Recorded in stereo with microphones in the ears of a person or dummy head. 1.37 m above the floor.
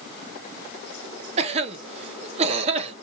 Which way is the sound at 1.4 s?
35° right (ahead or behind).